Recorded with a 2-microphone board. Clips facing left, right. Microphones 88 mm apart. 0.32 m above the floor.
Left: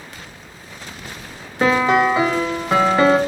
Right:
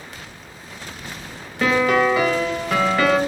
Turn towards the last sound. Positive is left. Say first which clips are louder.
# left 2 dB
turn(degrees=25)  # may be behind; listen again after turning